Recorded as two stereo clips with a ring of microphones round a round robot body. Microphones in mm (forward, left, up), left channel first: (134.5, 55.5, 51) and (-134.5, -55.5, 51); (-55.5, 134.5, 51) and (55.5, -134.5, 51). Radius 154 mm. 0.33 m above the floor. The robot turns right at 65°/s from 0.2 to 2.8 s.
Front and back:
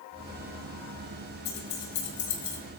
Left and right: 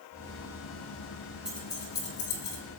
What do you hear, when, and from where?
1.4 s keys jangling: 20° left, 5 m; by 2.6 s 95° left, 5 m